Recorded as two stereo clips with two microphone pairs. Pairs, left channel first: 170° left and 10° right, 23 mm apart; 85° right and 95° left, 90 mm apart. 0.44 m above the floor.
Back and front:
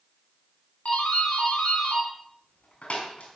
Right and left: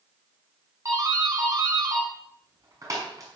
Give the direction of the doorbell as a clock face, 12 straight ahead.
7 o'clock.